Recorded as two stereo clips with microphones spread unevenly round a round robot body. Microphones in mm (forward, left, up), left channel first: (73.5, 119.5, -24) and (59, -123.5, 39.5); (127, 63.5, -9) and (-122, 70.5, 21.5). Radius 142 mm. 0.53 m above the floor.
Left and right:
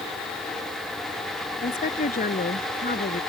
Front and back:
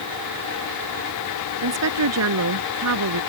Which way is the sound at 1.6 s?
155° left.